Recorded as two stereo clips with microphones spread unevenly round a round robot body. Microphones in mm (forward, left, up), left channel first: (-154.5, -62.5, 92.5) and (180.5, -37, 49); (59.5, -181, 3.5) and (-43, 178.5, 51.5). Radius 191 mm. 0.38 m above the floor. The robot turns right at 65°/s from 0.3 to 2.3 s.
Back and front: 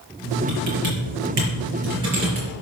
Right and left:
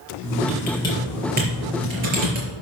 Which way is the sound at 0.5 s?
20° right.